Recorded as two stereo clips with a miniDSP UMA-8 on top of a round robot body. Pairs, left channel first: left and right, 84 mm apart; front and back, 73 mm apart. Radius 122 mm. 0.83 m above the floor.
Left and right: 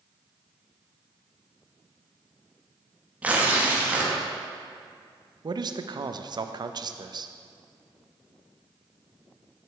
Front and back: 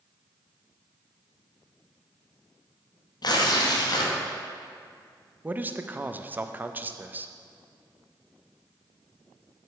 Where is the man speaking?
115° right, 0.6 m.